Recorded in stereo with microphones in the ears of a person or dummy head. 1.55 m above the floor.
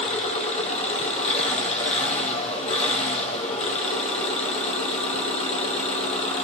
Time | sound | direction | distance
0.0 | an engine running | 35° left (ahead or behind) | 2 m